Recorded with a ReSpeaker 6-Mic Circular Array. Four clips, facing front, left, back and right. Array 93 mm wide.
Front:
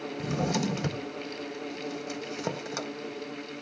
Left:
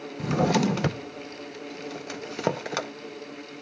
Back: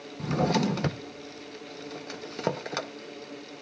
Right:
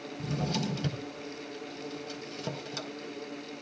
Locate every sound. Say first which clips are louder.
0.2 s a drawer: left 10 dB, back 4 dB; 110° left, 0.6 m